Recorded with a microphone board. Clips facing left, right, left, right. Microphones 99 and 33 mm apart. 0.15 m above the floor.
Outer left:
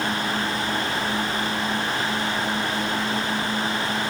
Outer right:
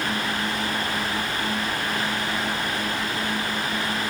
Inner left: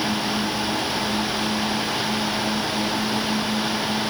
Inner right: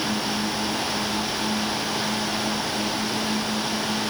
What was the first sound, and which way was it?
Only background noise.